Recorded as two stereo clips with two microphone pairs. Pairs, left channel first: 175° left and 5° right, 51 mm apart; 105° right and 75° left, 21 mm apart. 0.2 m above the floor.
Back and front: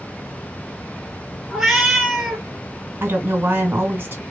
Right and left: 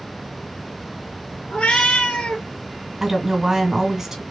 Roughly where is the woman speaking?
Ahead.